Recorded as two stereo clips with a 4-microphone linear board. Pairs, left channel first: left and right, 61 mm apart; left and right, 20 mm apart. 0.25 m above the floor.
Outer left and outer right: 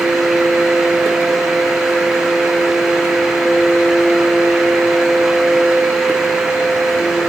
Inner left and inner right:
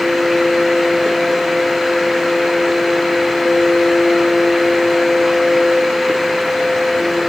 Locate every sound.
Only background noise.